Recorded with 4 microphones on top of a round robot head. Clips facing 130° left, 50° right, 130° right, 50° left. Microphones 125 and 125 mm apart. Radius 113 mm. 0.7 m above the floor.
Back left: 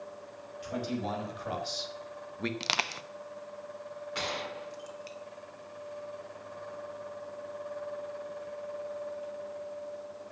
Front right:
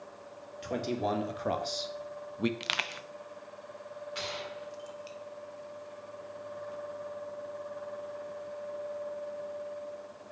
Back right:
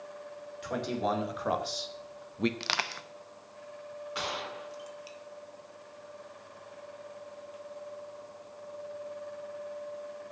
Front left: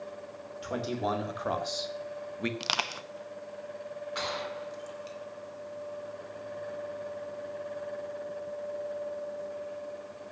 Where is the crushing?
115° left, 0.9 m.